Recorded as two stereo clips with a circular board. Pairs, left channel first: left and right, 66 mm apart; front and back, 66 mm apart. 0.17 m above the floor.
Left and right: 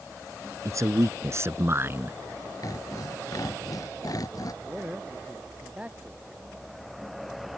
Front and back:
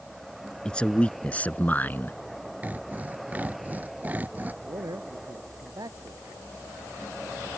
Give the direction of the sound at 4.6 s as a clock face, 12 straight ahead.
5 o'clock.